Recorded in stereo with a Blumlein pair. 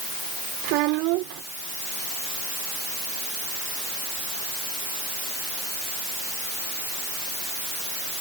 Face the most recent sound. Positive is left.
turn(degrees=-40)